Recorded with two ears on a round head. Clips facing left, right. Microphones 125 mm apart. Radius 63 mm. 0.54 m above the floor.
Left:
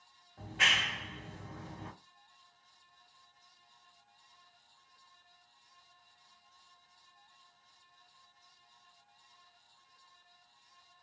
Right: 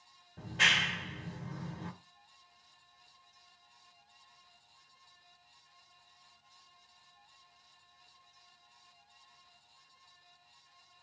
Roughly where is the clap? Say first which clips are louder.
Even; right.